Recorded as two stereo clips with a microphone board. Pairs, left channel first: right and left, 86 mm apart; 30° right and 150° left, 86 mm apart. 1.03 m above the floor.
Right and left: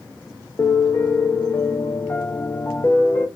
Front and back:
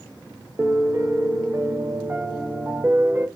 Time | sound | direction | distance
0.6 | a piano | 150° right | 0.6 m